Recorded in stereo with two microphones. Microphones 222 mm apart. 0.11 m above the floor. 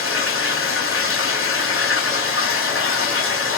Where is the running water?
70° left (ahead or behind), 1.4 m.